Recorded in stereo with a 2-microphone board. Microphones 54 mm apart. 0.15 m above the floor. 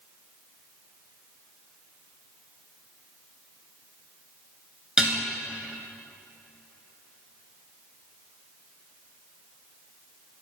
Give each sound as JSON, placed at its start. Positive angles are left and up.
{"t": 5.0, "sound": "dishes clattering", "side_deg": -15, "distance_m": 1.3}